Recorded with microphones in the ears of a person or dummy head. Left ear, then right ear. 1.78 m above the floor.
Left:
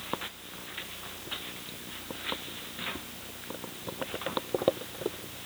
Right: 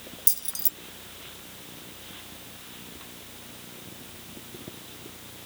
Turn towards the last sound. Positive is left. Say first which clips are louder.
# right 7 dB
turn(degrees=-50)  # may be behind; listen again after turning